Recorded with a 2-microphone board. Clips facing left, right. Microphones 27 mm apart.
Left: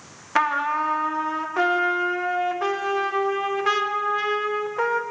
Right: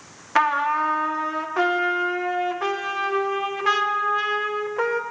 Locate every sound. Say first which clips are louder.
0.3 s a trumpet: right 2 dB; centre (ahead or behind), 0.8 m